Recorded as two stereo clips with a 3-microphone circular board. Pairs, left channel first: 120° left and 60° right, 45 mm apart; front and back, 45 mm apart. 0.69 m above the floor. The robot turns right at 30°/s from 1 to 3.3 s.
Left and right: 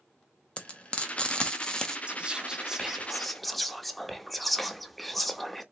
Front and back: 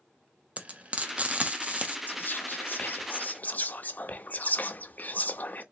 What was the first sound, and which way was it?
Frying, 155° left.